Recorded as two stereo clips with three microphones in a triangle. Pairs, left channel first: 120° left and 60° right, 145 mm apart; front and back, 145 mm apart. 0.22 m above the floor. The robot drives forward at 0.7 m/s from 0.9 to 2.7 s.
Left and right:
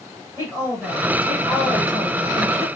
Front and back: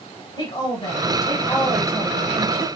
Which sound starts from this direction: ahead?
A woman speaking, at 0.4 s.